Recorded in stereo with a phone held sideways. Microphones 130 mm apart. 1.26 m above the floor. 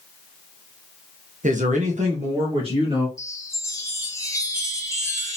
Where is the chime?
20° left (ahead or behind), 0.8 m.